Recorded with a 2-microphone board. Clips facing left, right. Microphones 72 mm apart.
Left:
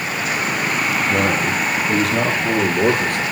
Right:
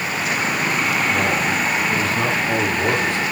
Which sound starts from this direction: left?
A man speaking, at 1.1 s.